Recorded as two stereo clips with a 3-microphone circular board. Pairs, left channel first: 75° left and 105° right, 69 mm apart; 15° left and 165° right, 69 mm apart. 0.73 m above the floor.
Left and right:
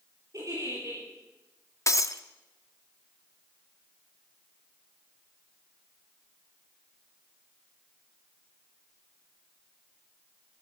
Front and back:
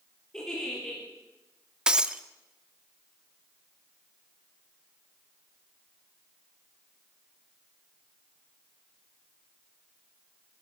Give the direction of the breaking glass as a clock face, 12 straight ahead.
8 o'clock.